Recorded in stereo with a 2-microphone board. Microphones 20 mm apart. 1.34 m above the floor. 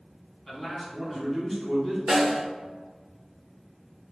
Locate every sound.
0.5 s a man speaking: 20° left (ahead or behind), 1.5 m
2.1 s a snare drum: 5° right (ahead or behind), 1.1 m